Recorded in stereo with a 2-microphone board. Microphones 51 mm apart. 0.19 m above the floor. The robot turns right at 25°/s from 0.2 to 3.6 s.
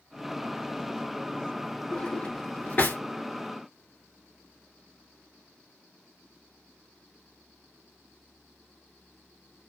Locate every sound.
1.9 s a drawer: 15° left (ahead or behind), 1.3 m; by 3.0 s 40° left (ahead or behind), 1.3 m